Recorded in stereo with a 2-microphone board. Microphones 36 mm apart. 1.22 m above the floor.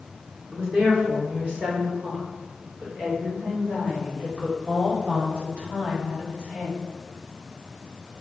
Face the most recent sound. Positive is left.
turn(degrees=-50)  # may be behind; listen again after turning